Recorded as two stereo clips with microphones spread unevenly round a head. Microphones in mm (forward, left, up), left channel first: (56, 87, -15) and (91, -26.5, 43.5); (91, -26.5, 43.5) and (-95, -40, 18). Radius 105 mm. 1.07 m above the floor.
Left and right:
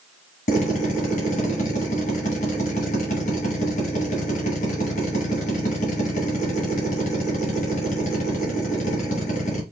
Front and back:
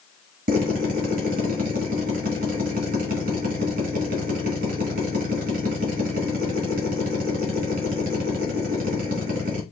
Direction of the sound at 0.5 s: 135° left.